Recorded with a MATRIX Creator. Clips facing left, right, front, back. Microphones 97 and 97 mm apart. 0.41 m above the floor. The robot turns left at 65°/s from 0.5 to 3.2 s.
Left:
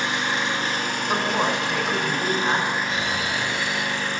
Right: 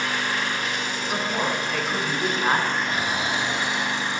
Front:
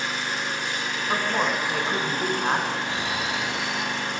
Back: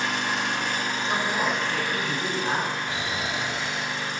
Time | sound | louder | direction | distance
0.0 | an engine running | left 1 dB, back 2 dB | 155° left | 0.9 m
1.1 | a woman speaking | left 3 dB, front 2 dB | 65° left | 1.3 m
2.9 | snoring | right 1 dB, front 2 dB | 120° right | 1.0 m